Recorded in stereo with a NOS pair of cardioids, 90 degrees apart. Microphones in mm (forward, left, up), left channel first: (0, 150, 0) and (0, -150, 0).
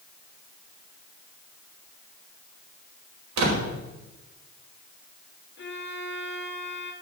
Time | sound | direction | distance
3.4 | a door slam | 65° right | 4.5 m
5.6 | a violin | 35° left | 2.5 m